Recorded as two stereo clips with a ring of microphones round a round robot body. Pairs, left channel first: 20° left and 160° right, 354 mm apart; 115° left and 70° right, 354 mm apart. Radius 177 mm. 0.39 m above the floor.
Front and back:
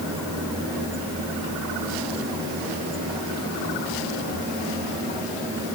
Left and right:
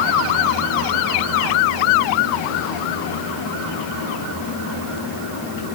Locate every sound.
Only background noise.